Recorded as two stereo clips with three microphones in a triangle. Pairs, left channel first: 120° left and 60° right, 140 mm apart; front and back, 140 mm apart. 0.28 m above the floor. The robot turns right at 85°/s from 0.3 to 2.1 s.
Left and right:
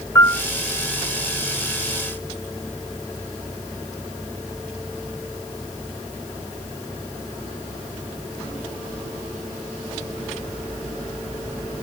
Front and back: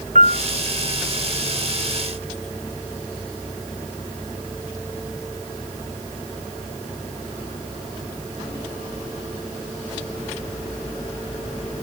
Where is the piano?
170° right; by 0.4 s 160° right.